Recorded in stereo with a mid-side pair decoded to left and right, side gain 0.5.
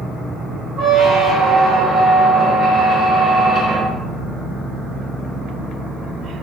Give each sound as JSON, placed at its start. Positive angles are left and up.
{"t": 0.8, "sound": "a squeak", "azimuth_deg": -45, "distance_m": 2.0}